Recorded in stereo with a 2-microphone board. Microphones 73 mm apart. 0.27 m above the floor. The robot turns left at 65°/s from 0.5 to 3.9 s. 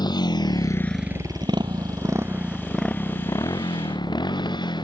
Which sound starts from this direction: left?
A motorcycle, at 0.0 s.